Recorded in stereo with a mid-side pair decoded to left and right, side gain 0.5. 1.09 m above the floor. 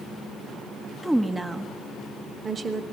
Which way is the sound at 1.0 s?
10° right.